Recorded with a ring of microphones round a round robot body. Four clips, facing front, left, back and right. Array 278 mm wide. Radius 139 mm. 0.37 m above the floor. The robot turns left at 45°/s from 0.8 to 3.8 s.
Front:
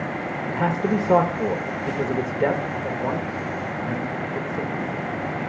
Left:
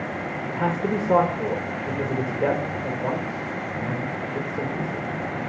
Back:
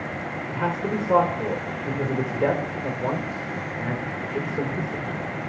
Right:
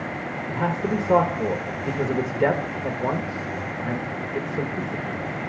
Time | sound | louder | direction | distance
0.5 | a man speaking | even, front 4 dB | straight ahead | 0.8 m